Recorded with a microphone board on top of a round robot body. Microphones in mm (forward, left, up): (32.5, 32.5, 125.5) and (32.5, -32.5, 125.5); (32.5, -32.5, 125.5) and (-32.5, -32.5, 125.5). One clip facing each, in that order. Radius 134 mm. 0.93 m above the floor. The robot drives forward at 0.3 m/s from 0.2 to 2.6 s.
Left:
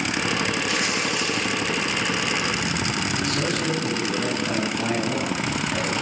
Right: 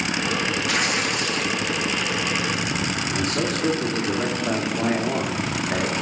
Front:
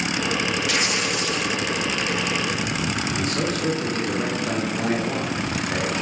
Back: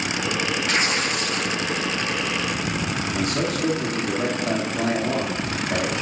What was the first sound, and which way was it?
Tearing paper, 125° right.